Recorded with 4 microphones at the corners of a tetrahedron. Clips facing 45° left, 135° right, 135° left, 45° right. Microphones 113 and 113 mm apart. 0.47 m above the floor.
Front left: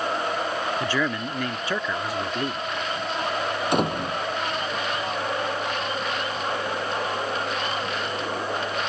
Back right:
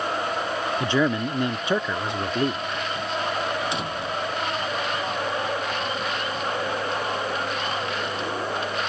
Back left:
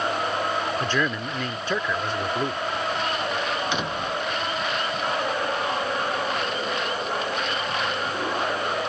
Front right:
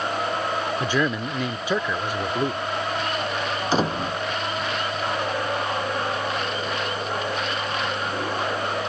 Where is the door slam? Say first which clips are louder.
Front left 5 dB, front right 4 dB; 10° left.